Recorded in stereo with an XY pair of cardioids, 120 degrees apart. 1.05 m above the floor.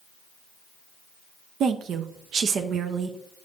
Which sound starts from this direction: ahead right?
A woman speaking, at 1.6 s.